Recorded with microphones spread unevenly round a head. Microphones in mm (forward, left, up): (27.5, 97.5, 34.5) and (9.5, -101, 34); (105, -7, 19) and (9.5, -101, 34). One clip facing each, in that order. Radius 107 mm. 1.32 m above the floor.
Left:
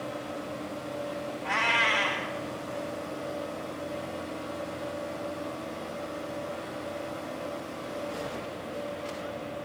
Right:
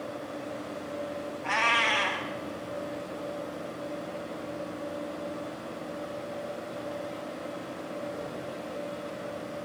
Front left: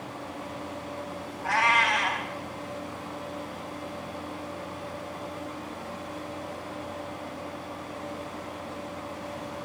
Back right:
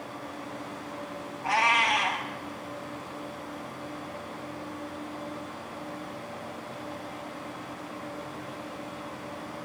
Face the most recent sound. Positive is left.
turn(degrees=-65)